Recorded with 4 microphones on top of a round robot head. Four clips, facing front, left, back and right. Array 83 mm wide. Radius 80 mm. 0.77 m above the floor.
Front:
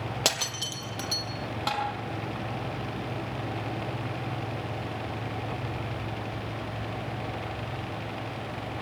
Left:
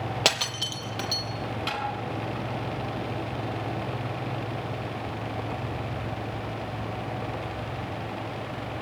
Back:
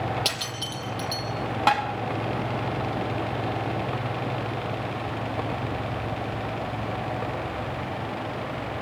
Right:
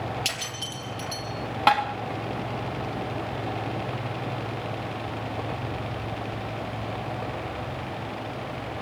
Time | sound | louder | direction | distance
0.2 | breaking glass | left 5 dB, even | 70° left | 3.5 m
1.7 | tapping | right 15 dB, back 8 dB | 115° right | 4 m